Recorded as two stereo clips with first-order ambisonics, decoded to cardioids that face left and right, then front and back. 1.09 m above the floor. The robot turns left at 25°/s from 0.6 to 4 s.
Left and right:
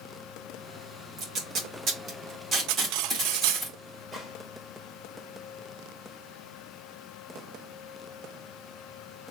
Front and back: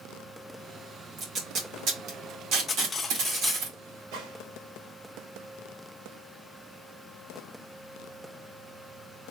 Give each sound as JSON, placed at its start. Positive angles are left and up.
{"t": 1.2, "sound": "tape being pulled", "azimuth_deg": -125, "distance_m": 2.0}
{"t": 2.7, "sound": "cutlery clinking", "azimuth_deg": -70, "distance_m": 0.5}
{"t": 4.1, "sound": "a gunshot", "azimuth_deg": 170, "distance_m": 2.5}